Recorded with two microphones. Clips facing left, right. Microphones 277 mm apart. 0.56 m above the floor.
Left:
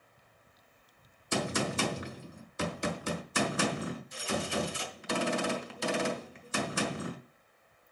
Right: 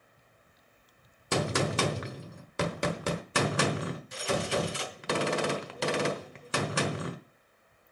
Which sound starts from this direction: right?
A gunshot, at 1.3 s.